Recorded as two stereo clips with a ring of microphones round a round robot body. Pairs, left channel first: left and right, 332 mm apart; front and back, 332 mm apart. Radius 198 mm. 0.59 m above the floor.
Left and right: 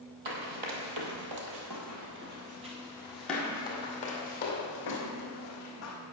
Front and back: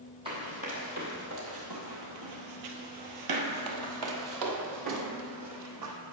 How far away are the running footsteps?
About 1.5 m.